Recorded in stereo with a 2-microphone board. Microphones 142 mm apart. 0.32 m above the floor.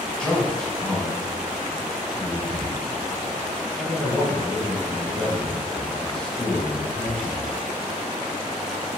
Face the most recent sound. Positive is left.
turn(degrees=-5)  # may be behind; listen again after turning